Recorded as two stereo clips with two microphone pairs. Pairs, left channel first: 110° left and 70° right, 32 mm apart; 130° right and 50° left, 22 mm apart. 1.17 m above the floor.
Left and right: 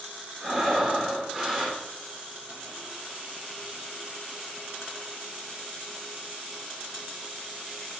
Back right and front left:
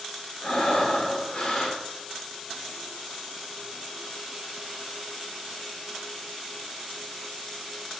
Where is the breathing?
165° right, 2 m.